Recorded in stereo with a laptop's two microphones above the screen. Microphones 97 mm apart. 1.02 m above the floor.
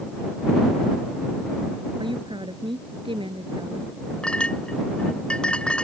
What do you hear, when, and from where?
2.0 s a woman speaking: 55° right (ahead or behind); by 4.0 s 65° right (ahead or behind)
4.2 s a clink: 10° left (ahead or behind)